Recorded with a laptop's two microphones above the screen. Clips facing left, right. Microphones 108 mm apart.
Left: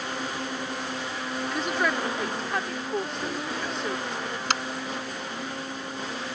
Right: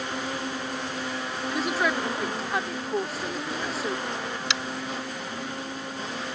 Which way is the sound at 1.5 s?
5° right (ahead or behind).